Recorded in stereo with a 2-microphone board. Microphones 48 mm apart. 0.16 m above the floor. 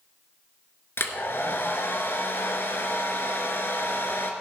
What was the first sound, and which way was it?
A hair dryer, 55° left (ahead or behind).